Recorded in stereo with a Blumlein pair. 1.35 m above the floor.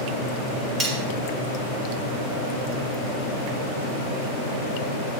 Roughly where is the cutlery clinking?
Ahead.